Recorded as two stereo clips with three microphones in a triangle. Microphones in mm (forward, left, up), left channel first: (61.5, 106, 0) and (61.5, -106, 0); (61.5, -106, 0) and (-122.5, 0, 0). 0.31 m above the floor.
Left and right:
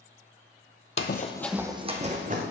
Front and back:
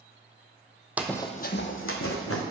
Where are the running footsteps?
70° left, 0.6 m; by 2.4 s 40° right, 1.5 m.